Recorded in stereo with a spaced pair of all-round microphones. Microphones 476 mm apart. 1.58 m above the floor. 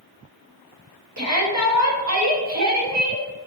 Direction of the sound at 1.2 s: 35° right (ahead or behind).